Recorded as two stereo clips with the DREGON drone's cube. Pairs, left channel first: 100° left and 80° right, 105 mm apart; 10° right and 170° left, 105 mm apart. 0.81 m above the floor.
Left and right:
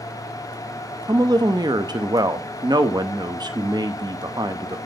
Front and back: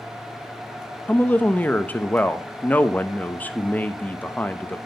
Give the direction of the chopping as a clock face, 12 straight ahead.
I don't hear chopping.